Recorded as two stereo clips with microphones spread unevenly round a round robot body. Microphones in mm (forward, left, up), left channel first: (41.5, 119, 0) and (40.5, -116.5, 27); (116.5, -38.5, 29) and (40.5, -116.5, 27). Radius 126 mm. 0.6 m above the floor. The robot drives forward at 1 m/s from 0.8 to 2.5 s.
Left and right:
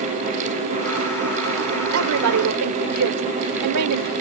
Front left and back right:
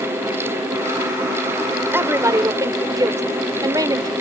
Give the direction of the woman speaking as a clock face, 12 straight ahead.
2 o'clock.